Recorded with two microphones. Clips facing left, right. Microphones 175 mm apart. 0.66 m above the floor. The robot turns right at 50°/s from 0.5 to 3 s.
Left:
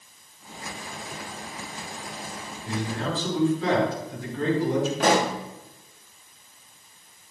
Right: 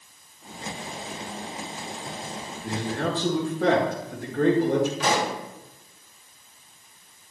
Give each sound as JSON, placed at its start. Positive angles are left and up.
{"t": 2.6, "sound": "a man speaking", "side_deg": -55, "distance_m": 4.5}
{"t": 5.0, "sound": "a pop", "side_deg": 55, "distance_m": 1.4}